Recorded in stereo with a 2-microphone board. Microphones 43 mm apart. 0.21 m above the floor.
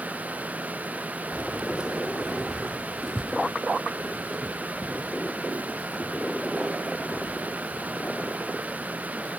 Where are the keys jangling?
30° right (ahead or behind), 0.7 m; by 9.3 s 25° left (ahead or behind), 4.5 m.